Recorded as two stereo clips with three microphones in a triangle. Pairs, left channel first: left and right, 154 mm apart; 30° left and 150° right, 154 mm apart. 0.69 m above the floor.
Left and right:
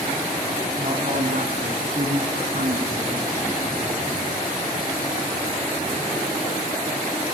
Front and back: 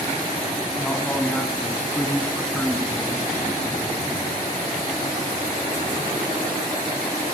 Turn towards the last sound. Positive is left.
turn(degrees=-55)